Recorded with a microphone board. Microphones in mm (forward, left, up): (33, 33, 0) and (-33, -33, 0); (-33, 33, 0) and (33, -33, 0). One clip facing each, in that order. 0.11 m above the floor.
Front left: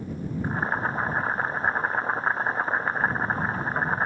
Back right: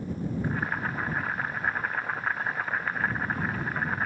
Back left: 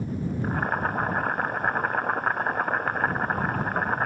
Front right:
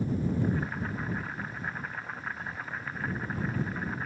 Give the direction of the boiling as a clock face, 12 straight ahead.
9 o'clock.